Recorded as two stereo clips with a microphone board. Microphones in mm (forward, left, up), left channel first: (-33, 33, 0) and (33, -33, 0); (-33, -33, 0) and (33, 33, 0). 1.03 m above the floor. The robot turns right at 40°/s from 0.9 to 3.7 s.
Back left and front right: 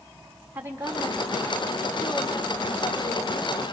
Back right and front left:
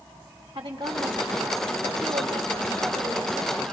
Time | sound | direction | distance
0.6 | a woman speaking | 25° left | 4 m